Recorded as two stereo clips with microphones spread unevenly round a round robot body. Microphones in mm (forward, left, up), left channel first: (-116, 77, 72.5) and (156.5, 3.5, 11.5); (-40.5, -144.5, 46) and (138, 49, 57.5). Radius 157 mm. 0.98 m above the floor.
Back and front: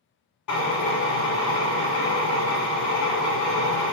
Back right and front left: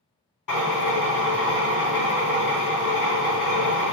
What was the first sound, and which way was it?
A drill, 160° right.